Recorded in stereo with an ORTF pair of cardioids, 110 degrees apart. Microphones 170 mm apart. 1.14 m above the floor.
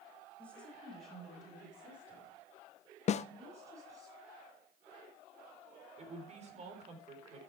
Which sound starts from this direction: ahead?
A woman speaking, at 0.4 s.